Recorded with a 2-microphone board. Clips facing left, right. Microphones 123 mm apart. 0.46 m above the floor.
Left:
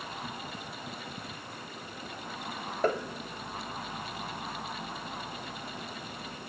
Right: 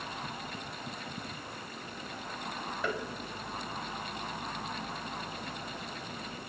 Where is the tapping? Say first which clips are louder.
Left 7 dB; 45° left (ahead or behind), 1.7 m.